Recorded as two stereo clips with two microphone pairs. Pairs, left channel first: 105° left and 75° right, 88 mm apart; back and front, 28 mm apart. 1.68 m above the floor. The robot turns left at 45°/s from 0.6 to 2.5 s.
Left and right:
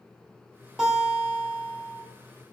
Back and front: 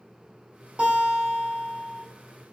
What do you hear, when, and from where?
0.8 s a guitar: 5° left, 1.4 m; by 2.0 s 50° right, 1.4 m